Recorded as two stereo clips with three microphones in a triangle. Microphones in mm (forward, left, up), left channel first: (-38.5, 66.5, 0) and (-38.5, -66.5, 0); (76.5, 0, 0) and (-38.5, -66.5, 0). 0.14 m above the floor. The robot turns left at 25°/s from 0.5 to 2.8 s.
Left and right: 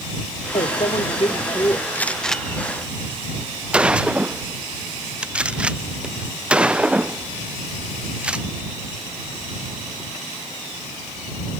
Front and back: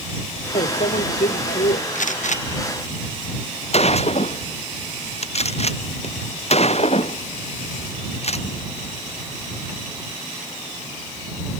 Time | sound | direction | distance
0.6 | a microwave | 55° left | ?
1.9 | a gunshot | 15° left | ?